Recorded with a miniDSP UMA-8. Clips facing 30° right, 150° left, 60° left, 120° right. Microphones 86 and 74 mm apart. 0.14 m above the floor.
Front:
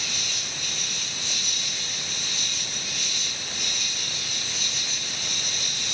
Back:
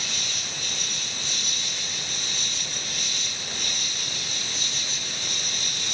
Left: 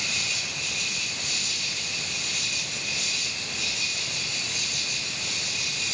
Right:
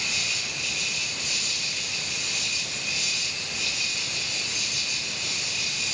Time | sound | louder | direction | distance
0.0 | an insect | even, even | 95° left | 4 m